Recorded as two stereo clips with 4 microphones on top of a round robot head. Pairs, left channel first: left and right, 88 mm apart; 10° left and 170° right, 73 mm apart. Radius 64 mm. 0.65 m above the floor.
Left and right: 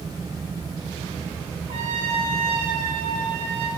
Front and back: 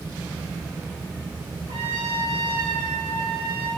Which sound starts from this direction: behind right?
A trumpet, at 1.7 s.